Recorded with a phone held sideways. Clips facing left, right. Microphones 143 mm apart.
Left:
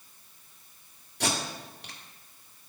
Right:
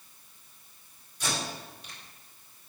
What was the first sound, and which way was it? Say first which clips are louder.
Tape being pulled: left 3 dB; 60° left (ahead or behind).